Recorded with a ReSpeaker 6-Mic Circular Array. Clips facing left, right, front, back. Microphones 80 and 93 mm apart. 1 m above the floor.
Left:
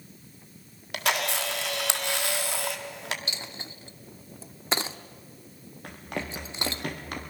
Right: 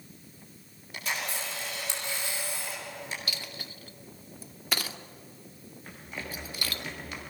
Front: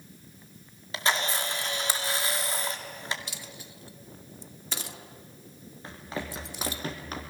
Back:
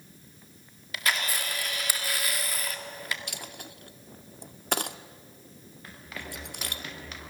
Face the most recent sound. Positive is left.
turn(degrees=45)